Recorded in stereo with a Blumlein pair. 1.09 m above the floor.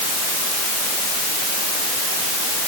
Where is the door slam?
No door slam in this recording.